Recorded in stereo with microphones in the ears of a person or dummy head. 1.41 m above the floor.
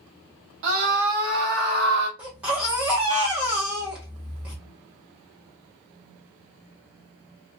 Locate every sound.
0.6 s a scream: 65° right (ahead or behind), 0.9 m
2.2 s a baby crying: 10° right (ahead or behind), 0.9 m